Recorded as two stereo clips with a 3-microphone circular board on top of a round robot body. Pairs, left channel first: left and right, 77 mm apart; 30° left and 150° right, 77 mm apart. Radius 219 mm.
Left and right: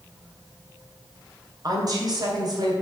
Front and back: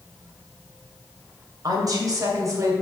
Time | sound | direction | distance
1.6 | a woman speaking | 120° right | 3 m